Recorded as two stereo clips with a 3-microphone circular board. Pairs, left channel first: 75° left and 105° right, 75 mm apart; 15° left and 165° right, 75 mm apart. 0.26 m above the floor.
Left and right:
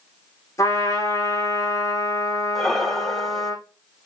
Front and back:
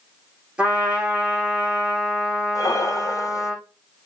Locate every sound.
0.6 s a trumpet: 120° left, 6 m
2.5 s breathing: 10° right, 0.7 m